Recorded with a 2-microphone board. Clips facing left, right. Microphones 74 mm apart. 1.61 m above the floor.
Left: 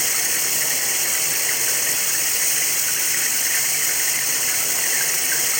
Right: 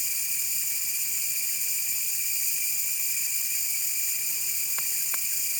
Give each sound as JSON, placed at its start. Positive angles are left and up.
{"t": 0.0, "sound": "running water", "side_deg": 75}